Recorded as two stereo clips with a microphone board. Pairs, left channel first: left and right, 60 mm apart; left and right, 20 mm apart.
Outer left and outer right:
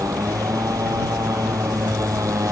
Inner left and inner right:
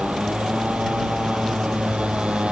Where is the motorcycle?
80° right; by 2.5 s 70° right (ahead or behind).